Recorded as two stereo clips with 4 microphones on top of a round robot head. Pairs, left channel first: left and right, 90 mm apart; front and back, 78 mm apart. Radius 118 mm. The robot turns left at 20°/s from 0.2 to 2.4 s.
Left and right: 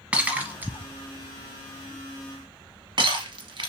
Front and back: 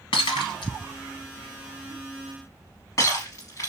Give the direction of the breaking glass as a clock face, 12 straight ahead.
12 o'clock.